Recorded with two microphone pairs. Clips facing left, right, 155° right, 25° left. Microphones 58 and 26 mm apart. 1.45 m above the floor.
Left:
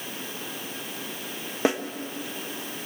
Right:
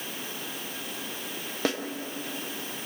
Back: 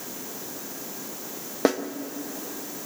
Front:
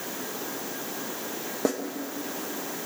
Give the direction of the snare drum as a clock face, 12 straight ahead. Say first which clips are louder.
Left 5 dB, back 5 dB; 7 o'clock.